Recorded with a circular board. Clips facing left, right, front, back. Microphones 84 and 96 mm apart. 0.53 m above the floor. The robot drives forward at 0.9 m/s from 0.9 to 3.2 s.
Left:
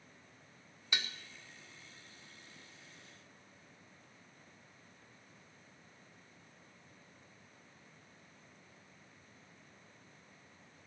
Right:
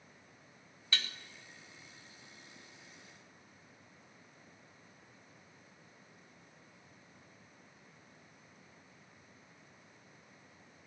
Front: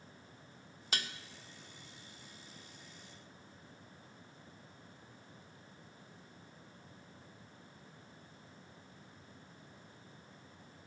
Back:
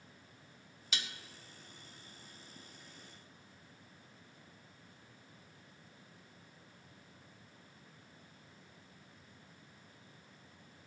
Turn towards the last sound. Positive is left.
turn(degrees=170)